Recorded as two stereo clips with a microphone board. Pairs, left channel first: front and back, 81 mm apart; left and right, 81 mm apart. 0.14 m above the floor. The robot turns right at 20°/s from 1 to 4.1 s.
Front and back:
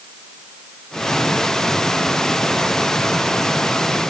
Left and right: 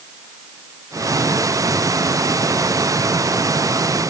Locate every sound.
Only background noise.